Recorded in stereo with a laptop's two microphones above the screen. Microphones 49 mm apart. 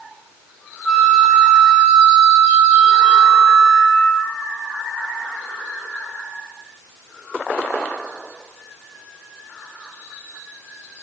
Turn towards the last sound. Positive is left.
turn(degrees=5)  # may be behind; listen again after turning